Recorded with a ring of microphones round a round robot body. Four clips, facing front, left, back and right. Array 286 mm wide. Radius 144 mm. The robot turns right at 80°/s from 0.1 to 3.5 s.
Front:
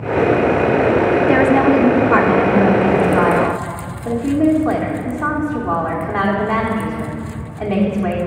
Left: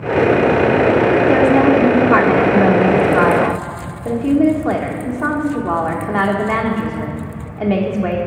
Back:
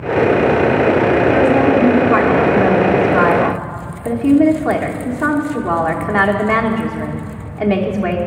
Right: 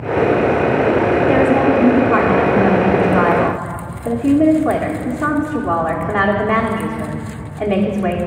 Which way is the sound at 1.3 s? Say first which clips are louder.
Left 2 dB, front 1 dB; 20° right.